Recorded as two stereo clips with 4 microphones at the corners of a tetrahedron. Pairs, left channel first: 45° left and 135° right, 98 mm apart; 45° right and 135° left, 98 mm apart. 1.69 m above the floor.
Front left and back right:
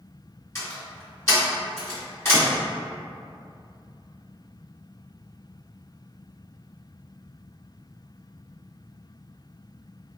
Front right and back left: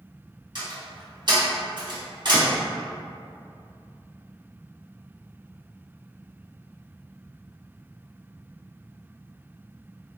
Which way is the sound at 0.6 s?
105° left.